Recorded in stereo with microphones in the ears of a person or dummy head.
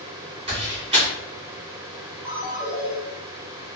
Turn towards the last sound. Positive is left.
turn(degrees=-10)  # may be behind; listen again after turning